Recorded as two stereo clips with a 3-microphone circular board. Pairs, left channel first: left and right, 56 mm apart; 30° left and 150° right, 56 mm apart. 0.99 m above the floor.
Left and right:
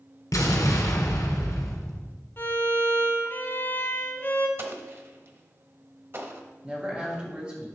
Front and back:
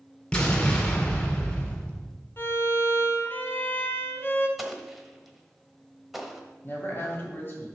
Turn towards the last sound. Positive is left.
turn(degrees=-25)